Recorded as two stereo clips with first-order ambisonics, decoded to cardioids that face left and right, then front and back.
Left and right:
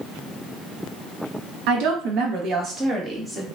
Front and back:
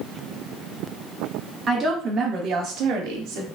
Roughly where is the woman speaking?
Right.